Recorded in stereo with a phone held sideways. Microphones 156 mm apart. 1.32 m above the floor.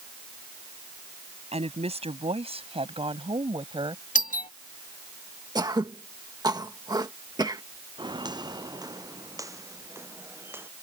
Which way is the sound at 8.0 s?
30° right (ahead or behind).